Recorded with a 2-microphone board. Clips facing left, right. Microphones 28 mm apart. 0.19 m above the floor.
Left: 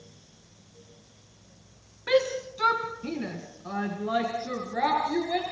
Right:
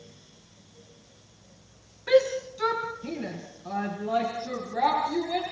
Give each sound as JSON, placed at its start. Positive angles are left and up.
{"t": 2.1, "sound": "a shout", "side_deg": 20, "distance_m": 2.0}